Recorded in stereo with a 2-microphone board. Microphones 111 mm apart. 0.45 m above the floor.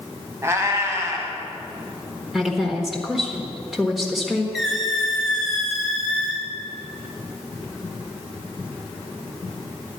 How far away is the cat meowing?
About 1.5 m.